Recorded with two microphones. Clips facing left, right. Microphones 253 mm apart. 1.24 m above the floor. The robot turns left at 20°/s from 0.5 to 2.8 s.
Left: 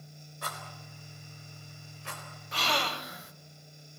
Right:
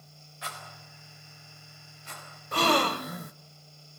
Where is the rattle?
50° left (ahead or behind), 4 m; by 2.2 s 85° left, 4 m.